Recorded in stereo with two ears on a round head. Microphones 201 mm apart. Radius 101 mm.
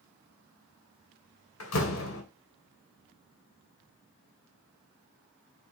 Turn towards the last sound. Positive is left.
turn(degrees=65)  # may be behind; listen again after turning